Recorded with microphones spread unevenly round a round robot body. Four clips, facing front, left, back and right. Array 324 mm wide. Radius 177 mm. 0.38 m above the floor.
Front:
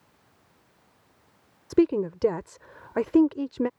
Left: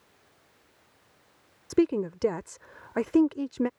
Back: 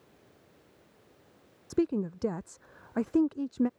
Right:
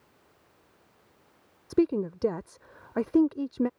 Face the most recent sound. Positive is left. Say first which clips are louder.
# left 1 dB, front 7 dB
turn(degrees=5)